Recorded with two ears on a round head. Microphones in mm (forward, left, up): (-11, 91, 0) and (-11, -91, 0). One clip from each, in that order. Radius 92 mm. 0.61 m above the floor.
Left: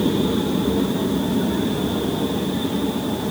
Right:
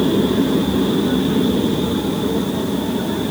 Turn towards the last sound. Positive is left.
No sound to turn to.